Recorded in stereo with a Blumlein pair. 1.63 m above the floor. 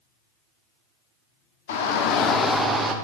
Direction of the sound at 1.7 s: 60° left.